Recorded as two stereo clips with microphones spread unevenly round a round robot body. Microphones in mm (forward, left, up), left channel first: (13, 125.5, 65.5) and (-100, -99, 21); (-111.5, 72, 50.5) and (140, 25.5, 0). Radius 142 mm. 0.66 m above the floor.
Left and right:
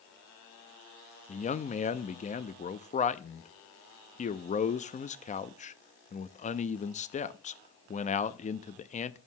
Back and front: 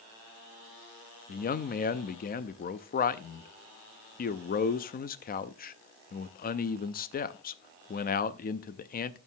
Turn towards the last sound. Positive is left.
turn(degrees=120)